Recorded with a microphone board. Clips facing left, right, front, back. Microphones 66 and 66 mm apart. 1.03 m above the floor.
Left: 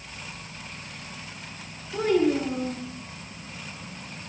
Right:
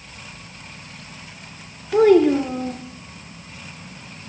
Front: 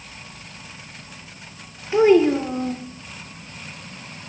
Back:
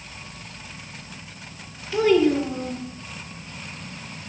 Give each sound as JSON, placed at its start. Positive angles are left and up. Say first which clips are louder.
{"t": 1.9, "sound": "a child speaking", "louder": "right 9 dB, front 3 dB", "azimuth_deg": -65, "distance_m": 1.6}